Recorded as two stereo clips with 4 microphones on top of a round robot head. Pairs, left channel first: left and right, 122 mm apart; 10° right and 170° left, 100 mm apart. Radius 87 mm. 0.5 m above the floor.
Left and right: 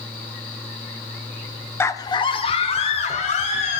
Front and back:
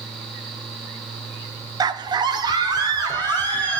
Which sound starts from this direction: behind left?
A scream, at 1.8 s.